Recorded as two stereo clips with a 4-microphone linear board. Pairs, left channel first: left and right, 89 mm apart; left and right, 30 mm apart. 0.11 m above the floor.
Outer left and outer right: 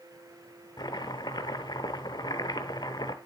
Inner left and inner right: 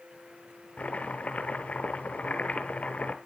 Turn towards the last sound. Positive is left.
turn(degrees=50)  # may be behind; listen again after turning